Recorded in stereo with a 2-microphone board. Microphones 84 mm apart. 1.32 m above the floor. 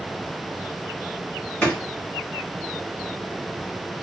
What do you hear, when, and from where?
1.6 s a drawer: 20° left (ahead or behind), 1.0 m